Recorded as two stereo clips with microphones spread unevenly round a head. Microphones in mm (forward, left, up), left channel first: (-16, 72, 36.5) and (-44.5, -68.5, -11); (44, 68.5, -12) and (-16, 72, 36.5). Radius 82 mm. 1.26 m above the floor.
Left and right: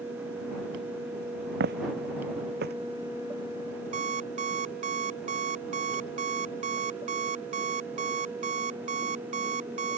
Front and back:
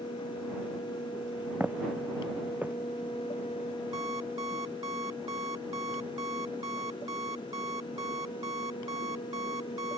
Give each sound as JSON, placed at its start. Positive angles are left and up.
{"t": 1.6, "sound": "footsteps", "azimuth_deg": -115}
{"t": 3.9, "sound": "an alarm clock", "azimuth_deg": -140}